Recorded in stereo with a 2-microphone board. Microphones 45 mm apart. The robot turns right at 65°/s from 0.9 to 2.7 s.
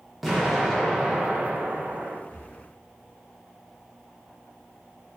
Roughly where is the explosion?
Behind.